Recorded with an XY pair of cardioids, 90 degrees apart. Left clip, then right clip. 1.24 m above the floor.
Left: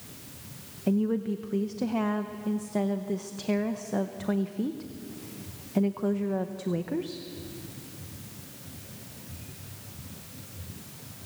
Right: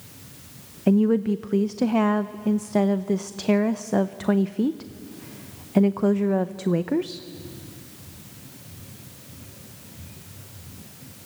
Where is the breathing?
I don't hear breathing.